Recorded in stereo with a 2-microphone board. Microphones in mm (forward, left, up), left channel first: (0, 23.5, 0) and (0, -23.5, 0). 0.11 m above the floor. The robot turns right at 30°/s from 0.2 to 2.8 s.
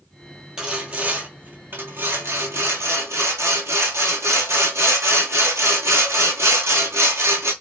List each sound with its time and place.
0.6 s sawing: 165° right, 1.0 m; by 7.5 s 95° right, 1.0 m